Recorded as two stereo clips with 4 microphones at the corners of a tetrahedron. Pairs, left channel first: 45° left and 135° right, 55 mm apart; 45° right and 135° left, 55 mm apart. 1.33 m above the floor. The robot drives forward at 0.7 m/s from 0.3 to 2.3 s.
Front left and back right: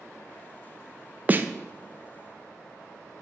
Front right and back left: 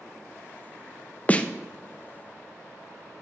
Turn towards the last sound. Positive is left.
turn(degrees=-155)